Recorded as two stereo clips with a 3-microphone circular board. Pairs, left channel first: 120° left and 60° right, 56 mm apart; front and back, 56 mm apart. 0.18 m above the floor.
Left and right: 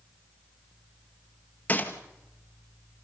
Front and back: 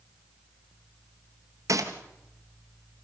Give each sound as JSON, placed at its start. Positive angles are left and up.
{"t": 1.7, "sound": "a gunshot", "azimuth_deg": 180, "distance_m": 1.8}